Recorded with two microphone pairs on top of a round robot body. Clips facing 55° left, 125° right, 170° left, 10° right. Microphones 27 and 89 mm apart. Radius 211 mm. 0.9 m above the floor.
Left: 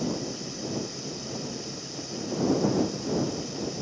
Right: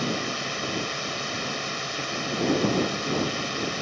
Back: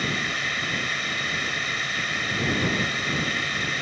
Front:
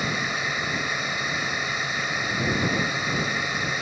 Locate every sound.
0.0 s a drone: 90° right